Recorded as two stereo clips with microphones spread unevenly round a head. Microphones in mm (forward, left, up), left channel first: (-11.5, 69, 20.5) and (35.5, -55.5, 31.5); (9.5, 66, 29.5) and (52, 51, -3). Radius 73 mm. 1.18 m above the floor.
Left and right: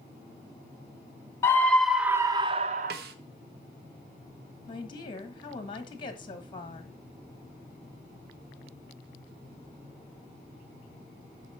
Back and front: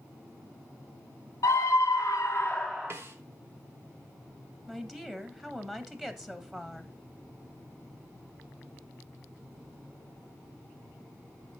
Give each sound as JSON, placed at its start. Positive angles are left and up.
{"t": 1.4, "sound": "a scream", "azimuth_deg": -175, "distance_m": 0.9}
{"t": 2.9, "sound": "a snare drum", "azimuth_deg": -60, "distance_m": 0.8}
{"t": 4.7, "sound": "a woman speaking", "azimuth_deg": 55, "distance_m": 1.5}